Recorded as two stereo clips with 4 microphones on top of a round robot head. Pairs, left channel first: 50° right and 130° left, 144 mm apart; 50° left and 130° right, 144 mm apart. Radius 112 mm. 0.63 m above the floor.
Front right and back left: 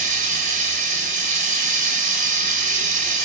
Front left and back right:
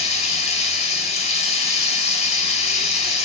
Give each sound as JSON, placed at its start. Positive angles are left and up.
{"t": 0.0, "sound": "running water", "azimuth_deg": 95, "distance_m": 1.4}